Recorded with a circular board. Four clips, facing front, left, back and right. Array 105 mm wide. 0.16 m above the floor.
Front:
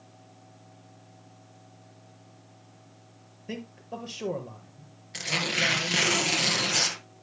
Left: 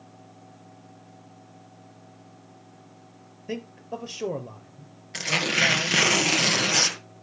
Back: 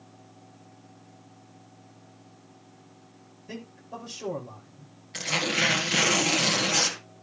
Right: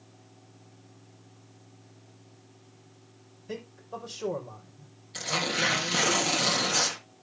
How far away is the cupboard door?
No cupboard door in this recording.